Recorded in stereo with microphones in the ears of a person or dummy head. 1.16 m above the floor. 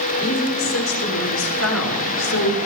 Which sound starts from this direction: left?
A woman speaking, at 0.2 s.